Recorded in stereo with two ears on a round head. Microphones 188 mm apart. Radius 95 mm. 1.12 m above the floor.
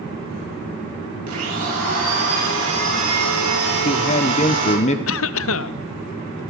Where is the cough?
65° left (ahead or behind), 0.7 m.